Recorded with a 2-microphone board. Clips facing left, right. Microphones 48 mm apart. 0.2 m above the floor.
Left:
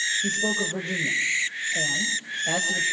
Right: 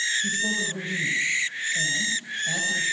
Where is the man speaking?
60° left (ahead or behind), 5.5 m.